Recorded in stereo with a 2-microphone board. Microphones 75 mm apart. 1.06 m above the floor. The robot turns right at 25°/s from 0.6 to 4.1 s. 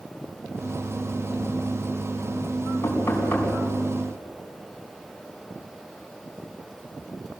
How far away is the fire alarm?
No fire alarm in this recording.